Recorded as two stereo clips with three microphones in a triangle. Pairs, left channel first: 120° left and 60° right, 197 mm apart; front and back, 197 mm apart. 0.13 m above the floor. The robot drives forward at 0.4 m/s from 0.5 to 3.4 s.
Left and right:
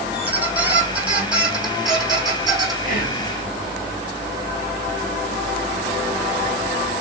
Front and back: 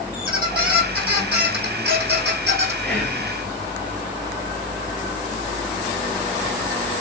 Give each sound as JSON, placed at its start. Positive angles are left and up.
{"t": 0.1, "sound": "a squeak", "azimuth_deg": -145, "distance_m": 3.0}
{"t": 2.8, "sound": "whispering", "azimuth_deg": 80, "distance_m": 2.5}